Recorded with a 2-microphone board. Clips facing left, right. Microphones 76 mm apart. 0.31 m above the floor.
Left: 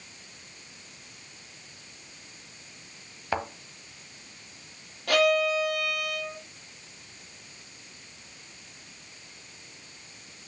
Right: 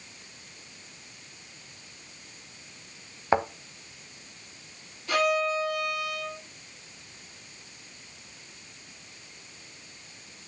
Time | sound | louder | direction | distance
3.3 | a thud | right 6 dB | 25° right (ahead or behind) | 1.0 m
5.1 | a violin | left 2 dB | 65° left (ahead or behind) | 7 m